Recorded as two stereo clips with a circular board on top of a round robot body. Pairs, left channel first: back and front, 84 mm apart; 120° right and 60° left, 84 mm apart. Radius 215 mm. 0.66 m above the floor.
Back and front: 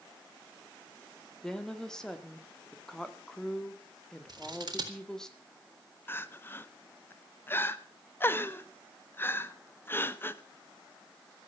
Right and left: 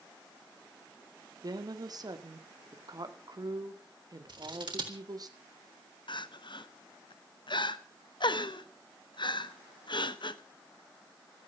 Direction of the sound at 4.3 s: 35° left.